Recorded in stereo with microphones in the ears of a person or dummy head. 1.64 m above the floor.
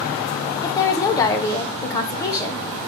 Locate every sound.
0.6 s a woman speaking: 20° left (ahead or behind), 0.7 m